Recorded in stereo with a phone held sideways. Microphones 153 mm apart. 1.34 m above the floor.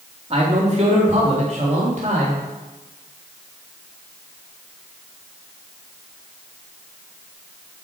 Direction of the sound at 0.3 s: 40° right (ahead or behind).